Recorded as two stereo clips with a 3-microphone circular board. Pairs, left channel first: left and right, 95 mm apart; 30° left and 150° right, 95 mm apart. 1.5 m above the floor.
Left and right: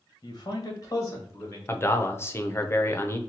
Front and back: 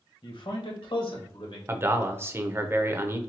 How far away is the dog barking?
I don't hear a dog barking.